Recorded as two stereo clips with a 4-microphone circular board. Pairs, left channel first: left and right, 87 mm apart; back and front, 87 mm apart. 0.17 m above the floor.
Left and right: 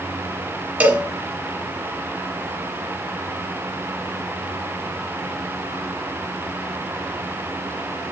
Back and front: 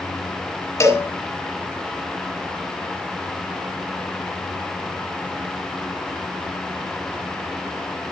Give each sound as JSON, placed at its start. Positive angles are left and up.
{"t": 0.8, "sound": "a cowbell", "azimuth_deg": -150, "distance_m": 1.6}